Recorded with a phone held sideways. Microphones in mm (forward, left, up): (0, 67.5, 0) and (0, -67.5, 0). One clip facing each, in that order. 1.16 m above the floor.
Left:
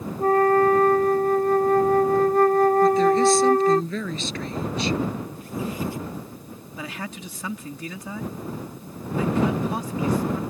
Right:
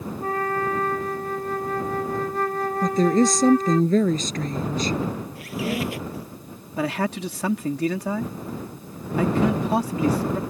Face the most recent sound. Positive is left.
turn(degrees=-70)  # may be behind; listen again after turning